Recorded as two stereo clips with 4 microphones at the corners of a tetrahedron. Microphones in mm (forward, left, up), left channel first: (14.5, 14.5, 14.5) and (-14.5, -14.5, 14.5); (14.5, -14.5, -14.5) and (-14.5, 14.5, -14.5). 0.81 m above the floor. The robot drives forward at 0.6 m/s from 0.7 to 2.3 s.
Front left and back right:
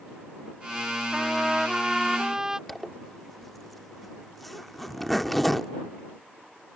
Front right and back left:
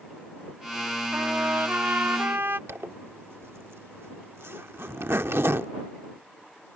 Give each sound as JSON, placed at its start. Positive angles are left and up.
{"t": 1.1, "sound": "a trumpet", "azimuth_deg": 140}
{"t": 2.7, "sound": "a zipper", "azimuth_deg": 130}